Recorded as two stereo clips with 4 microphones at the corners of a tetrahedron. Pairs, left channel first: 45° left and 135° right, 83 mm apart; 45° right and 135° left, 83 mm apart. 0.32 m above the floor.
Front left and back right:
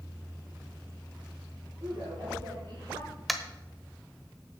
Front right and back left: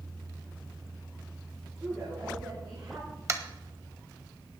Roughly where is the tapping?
Behind left.